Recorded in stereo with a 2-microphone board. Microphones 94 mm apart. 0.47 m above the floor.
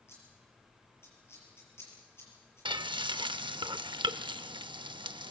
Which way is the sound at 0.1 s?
25° left (ahead or behind).